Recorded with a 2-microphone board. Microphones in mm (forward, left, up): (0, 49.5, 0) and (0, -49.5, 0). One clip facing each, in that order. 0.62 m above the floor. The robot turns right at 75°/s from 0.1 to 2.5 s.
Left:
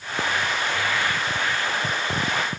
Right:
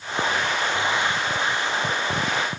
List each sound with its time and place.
Only background noise.